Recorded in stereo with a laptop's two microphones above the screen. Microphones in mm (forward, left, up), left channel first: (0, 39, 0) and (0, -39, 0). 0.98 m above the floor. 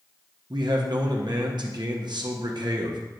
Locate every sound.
0.5 s a man speaking: 70° right (ahead or behind), 1.0 m